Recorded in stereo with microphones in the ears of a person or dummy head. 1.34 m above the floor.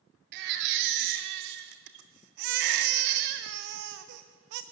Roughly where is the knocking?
I don't hear knocking.